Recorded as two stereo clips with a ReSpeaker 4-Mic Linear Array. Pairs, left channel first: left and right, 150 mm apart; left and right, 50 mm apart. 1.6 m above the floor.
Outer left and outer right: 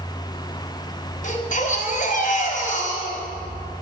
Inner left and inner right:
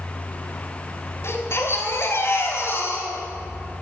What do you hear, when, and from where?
1.2 s a baby crying: 55° left (ahead or behind), 3.5 m